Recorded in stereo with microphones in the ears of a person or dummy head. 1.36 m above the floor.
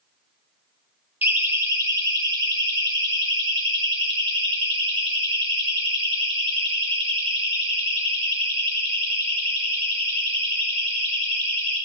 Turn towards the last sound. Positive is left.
turn(degrees=-25)  # may be behind; listen again after turning